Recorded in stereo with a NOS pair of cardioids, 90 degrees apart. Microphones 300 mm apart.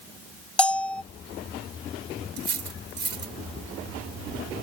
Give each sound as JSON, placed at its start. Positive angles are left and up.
{"t": 0.6, "sound": "a bell", "azimuth_deg": 5}
{"t": 2.4, "sound": "cutlery clinking", "azimuth_deg": -35}